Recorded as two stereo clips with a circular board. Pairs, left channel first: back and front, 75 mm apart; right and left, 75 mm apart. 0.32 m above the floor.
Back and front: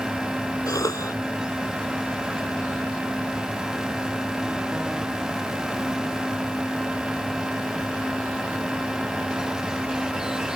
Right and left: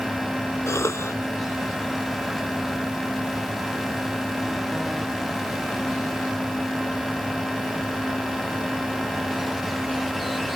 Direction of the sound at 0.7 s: 140° right.